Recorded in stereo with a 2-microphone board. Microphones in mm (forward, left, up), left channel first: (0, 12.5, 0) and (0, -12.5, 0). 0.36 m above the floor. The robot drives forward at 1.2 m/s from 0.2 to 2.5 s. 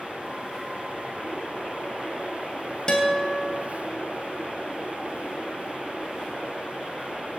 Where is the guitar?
35° left (ahead or behind), 2 m.